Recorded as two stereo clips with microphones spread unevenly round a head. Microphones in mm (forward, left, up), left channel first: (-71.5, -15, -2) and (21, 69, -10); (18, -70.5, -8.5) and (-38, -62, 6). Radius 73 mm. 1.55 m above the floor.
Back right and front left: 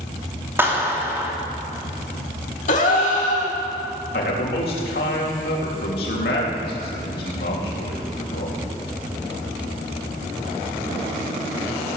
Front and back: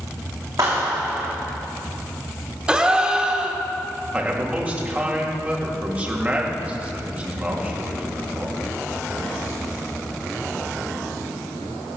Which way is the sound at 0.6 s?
115° left.